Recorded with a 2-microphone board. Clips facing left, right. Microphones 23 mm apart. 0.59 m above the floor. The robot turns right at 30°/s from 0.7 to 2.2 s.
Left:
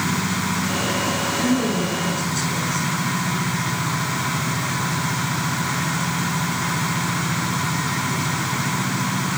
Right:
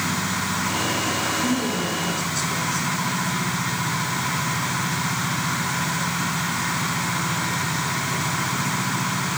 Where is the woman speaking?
30° left (ahead or behind), 7.5 m; by 2.9 s 5° left (ahead or behind), 7.5 m.